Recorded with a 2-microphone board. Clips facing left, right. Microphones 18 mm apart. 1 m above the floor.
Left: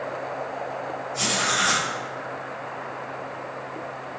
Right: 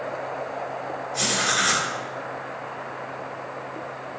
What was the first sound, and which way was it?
Writing, 30° right (ahead or behind).